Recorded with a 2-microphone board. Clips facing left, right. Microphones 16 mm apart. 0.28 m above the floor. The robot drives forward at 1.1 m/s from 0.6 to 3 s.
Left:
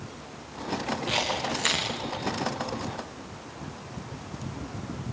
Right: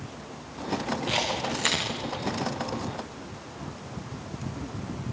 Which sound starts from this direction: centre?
A camera shutter, at 1.1 s.